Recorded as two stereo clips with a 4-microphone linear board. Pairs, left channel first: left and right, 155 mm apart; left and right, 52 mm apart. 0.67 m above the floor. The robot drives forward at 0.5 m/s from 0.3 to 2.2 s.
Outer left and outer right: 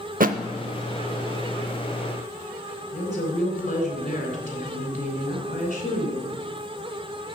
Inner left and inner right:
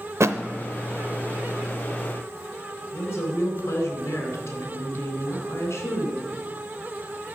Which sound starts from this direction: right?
A thud, at 0.2 s.